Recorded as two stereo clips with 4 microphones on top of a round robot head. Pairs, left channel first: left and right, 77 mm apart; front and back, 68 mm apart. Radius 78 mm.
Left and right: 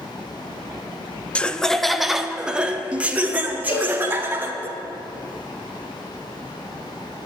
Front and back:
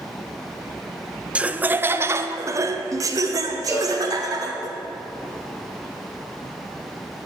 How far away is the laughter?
About 0.8 m.